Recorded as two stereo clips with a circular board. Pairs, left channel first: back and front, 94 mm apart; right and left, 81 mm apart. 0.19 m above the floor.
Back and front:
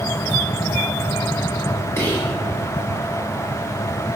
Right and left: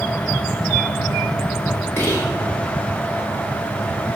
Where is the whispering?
130° right, 1.7 m.